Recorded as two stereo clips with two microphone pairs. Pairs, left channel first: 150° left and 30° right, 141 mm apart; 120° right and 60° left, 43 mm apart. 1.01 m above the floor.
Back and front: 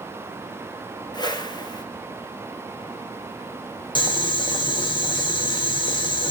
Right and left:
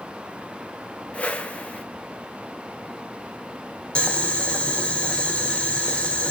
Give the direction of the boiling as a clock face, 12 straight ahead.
6 o'clock.